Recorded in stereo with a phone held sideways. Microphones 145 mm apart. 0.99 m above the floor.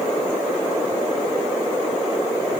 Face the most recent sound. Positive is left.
No sound to turn to.